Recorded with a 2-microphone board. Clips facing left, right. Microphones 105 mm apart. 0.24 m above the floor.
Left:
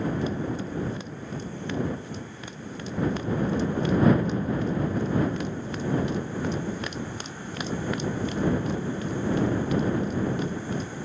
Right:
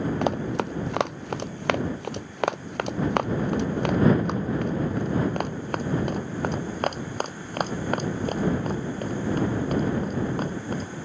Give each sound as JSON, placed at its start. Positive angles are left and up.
{"t": 0.2, "sound": "running footsteps", "side_deg": -75}